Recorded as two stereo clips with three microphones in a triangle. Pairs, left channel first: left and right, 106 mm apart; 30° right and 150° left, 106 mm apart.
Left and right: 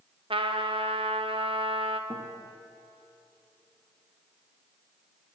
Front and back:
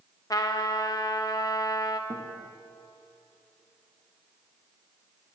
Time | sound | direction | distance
0.3 | a trumpet | 80° right | 0.9 m
2.1 | a guitar | 160° right | 2 m